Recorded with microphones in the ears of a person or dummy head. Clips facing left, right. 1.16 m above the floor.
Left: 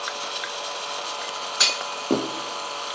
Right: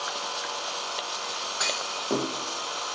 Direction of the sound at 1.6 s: 45° left (ahead or behind).